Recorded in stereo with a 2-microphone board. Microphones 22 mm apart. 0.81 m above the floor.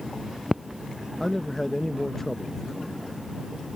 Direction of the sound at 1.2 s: 10° left (ahead or behind).